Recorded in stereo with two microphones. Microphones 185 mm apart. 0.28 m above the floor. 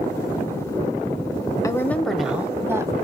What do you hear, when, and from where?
1.6 s a woman speaking: 20° left (ahead or behind), 0.9 m; by 2.9 s 15° right (ahead or behind), 1.4 m